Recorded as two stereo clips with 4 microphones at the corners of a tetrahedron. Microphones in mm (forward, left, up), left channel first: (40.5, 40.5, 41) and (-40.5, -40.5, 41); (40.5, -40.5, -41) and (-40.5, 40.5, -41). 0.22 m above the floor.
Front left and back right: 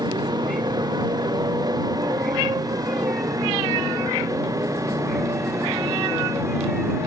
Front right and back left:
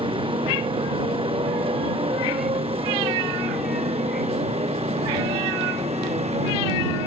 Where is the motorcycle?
175° left; by 7.1 s 160° left.